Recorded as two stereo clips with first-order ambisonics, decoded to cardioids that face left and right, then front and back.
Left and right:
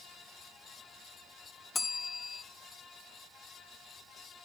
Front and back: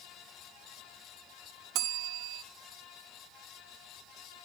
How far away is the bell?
About 0.7 m.